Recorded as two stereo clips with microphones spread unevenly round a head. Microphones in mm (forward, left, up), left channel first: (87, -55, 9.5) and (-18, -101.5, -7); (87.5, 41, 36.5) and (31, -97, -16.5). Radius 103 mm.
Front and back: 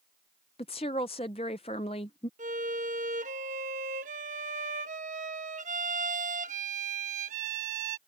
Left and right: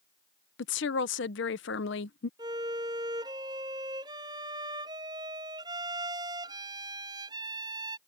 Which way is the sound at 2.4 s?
170° left.